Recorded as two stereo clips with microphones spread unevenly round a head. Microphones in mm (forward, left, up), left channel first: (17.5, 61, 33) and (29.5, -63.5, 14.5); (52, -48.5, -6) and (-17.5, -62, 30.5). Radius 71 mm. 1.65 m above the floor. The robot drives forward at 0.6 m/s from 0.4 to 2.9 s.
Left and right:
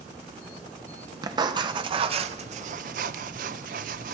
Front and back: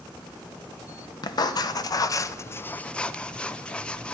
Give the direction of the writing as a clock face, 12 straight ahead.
1 o'clock.